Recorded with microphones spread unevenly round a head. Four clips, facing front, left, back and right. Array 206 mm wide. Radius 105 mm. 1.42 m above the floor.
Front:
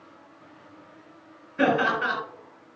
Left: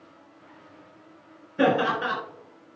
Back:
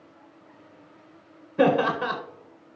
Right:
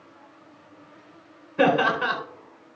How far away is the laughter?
About 4 m.